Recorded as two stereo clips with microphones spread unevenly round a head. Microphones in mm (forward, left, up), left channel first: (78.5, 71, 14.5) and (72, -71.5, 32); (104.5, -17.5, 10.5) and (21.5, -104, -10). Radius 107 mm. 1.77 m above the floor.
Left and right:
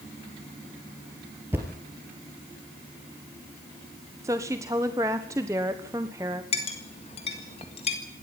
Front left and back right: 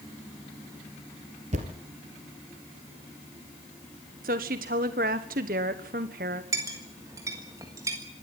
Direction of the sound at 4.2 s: 170° right.